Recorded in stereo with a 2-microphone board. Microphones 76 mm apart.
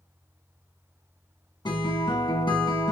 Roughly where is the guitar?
Left.